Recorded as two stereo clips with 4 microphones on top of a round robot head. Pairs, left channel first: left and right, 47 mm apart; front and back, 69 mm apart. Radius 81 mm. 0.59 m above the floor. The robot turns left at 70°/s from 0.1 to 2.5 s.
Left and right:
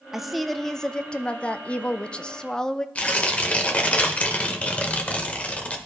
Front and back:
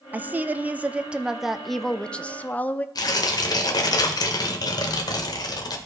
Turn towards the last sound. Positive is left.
turn(degrees=25)